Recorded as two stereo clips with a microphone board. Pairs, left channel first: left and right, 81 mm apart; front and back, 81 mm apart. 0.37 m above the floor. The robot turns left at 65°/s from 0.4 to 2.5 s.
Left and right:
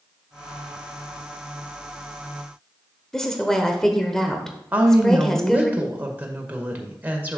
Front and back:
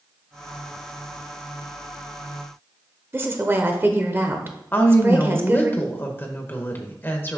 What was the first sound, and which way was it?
A woman speaking, 165° left.